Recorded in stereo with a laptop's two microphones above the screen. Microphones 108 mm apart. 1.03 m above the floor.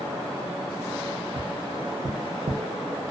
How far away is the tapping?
About 0.6 m.